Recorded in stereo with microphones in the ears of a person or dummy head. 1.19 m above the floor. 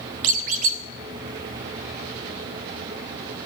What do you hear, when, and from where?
0.2 s a squeak: 45° right (ahead or behind), 0.8 m